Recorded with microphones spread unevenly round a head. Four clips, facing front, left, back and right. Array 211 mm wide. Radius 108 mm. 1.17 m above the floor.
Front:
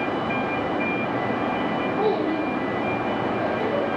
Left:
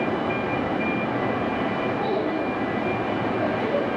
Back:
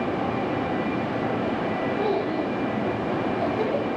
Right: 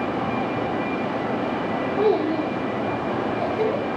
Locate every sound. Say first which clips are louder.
2.0 s a child speaking: right 4 dB, front 3 dB; 85° right, 1.8 m; by 3.9 s 135° right, 3 m